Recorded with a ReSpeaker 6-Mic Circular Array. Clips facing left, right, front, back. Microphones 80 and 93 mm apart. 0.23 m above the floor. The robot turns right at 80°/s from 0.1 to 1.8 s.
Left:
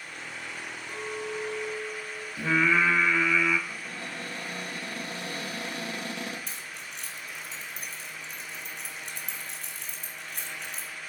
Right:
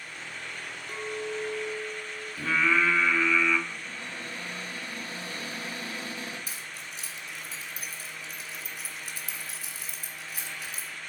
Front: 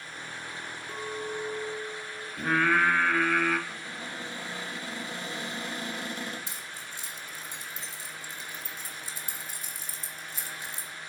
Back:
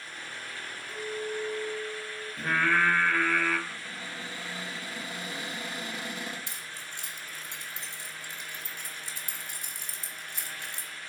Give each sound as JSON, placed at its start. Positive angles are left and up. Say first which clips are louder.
{"t": 0.9, "sound": "a clink", "louder": "right 1 dB, back 1 dB", "azimuth_deg": -5, "distance_m": 2.0}
{"t": 2.4, "sound": "singing", "louder": "left 1 dB, front 2 dB", "azimuth_deg": 80, "distance_m": 1.5}
{"t": 3.7, "sound": "a cupboard door", "louder": "left 1 dB, front 1 dB", "azimuth_deg": 105, "distance_m": 3.5}
{"t": 6.5, "sound": "keys jangling", "louder": "even, front 1 dB", "azimuth_deg": -175, "distance_m": 1.9}